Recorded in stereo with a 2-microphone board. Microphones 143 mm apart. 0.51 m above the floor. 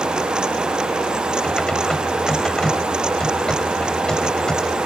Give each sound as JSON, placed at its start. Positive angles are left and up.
{"t": 1.4, "sound": "typing on a keyboard", "side_deg": 5}